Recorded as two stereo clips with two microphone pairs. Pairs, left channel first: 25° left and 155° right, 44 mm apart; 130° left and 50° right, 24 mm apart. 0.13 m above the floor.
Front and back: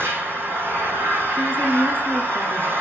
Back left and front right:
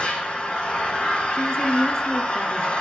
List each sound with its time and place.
0.0 s an engine running: 170° left, 3.5 m
1.3 s a woman speaking: 75° left, 2 m